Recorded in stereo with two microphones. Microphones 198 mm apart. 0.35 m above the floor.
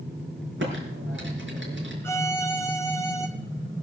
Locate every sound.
0.6 s typing on a keyboard: 75° right (ahead or behind), 5.5 m
2.0 s a violin: 10° left (ahead or behind), 1.7 m